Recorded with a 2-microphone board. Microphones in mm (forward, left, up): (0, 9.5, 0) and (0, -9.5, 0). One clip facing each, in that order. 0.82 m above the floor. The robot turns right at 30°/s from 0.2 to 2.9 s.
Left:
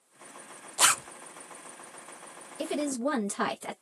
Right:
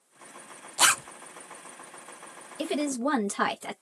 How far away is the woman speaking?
About 0.6 m.